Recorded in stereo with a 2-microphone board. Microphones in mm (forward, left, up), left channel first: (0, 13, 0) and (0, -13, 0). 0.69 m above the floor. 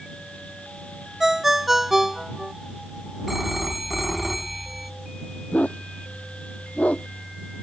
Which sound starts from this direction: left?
A dog barking, at 5.5 s.